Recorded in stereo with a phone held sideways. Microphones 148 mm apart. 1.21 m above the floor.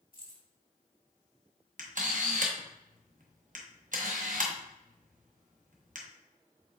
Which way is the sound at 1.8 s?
60° right (ahead or behind).